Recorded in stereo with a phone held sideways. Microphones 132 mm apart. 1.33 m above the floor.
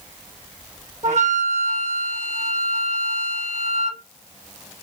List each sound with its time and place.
1.0 s a flute: 60° right (ahead or behind), 2 m